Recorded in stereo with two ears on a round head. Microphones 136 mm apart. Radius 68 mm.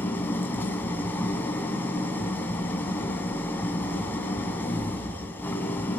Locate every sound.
0.0 s an engine running: 15° left (ahead or behind), 2.5 m